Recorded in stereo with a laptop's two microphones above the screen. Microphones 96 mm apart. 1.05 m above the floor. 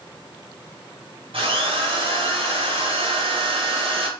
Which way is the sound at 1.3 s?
65° right (ahead or behind).